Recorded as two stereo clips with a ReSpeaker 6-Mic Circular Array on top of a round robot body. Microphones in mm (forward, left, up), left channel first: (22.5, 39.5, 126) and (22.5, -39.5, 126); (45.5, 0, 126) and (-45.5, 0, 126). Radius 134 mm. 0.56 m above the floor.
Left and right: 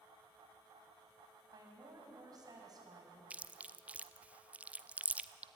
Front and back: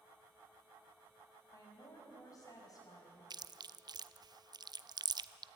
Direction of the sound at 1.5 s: 50° right.